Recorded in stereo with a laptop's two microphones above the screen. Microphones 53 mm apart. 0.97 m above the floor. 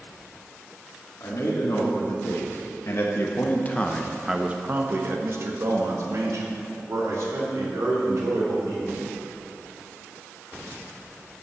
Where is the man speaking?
75° left (ahead or behind), 2.5 m; by 9.0 s 80° right, 4 m.